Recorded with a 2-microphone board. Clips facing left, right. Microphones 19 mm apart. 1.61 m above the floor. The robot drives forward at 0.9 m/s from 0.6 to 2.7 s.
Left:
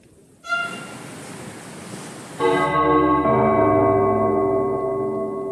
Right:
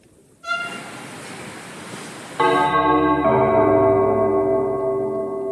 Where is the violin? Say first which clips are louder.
Left 1 dB; 30° right (ahead or behind), 1.5 m.